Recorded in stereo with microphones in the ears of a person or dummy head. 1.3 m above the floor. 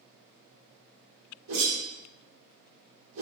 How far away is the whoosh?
About 1.7 m.